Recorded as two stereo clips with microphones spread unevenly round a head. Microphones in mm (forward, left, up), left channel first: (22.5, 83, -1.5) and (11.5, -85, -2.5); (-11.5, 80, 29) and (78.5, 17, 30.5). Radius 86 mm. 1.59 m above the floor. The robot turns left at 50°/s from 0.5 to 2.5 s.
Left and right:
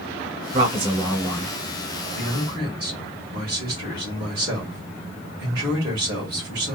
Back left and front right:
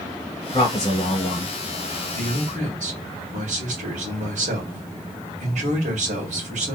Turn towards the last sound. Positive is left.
turn(degrees=-35)